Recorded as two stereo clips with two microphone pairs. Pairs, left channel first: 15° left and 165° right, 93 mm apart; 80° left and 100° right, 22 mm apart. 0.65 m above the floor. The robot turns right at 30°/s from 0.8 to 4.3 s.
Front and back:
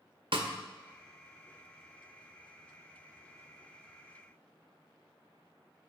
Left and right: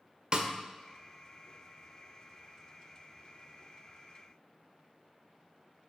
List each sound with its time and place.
0.3 s a snare drum: 140° right, 0.6 m